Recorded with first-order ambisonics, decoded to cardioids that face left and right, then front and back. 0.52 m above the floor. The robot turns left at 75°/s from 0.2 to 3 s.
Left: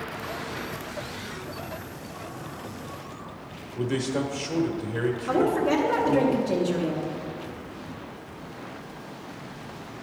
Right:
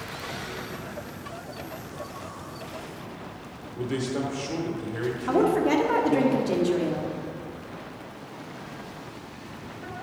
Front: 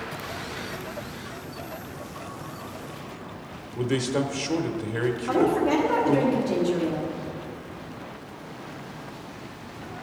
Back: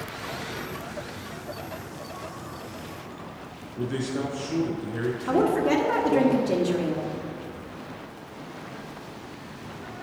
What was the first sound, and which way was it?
A man speaking, 5° left.